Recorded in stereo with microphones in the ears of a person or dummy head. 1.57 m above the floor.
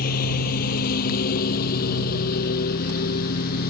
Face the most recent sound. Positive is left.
turn(degrees=50)  # may be behind; listen again after turning